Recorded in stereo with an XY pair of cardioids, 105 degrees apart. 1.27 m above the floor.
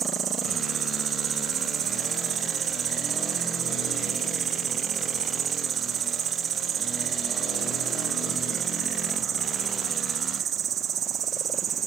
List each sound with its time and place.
0.0 s an insect: 55° right